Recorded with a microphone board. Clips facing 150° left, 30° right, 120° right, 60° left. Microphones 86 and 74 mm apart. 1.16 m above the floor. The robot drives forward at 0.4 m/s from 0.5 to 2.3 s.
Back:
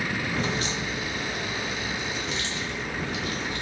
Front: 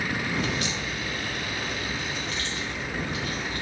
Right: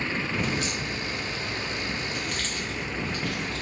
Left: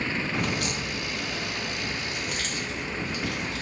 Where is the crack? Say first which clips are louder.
Back 1 dB, even; 90° left, 0.6 m; by 3.6 s 140° left, 0.9 m.